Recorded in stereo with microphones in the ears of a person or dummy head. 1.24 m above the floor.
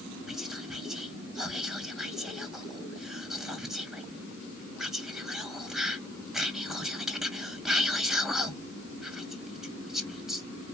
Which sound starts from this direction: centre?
Whispering, at 0.3 s.